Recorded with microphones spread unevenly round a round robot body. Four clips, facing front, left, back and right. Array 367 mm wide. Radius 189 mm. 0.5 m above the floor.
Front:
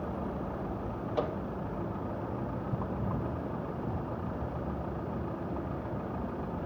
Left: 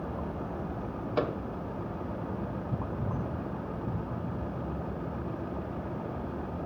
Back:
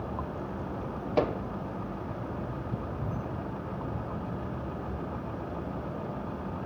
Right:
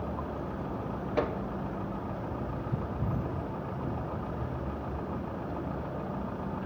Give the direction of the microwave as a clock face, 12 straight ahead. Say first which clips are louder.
Even, back 6 dB; 7 o'clock.